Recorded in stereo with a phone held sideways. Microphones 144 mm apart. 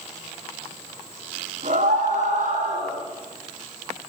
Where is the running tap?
No running tap in this recording.